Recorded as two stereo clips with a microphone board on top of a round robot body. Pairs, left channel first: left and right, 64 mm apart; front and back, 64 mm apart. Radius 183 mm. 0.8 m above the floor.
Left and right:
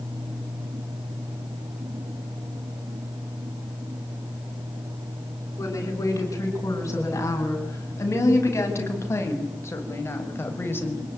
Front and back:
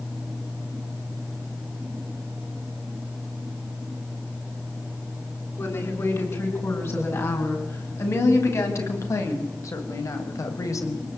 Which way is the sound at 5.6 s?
50° left.